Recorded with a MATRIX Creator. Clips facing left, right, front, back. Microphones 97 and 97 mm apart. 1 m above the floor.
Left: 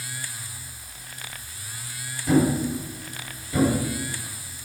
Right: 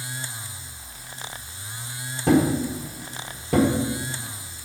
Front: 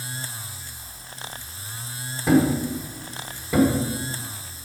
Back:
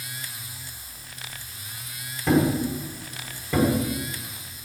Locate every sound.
2.3 s a thud: 85° right, 1.3 m